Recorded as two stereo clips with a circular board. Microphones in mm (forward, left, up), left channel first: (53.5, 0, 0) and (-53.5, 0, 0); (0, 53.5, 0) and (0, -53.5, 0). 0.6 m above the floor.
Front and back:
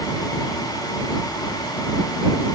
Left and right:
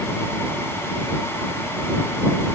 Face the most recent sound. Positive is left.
No sound to turn to.